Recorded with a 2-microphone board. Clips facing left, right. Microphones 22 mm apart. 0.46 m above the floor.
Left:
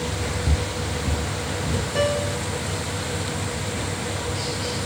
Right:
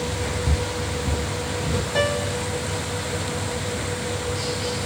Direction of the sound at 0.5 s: 10° left (ahead or behind).